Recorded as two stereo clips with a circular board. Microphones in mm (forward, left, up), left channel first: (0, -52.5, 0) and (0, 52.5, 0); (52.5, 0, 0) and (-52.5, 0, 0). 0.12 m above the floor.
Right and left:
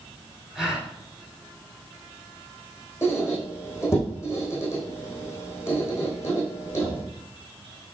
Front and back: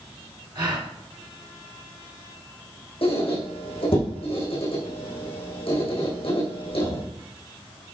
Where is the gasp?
175° left, 2 m.